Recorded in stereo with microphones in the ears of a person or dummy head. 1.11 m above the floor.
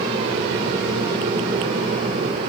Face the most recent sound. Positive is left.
No sound to turn to.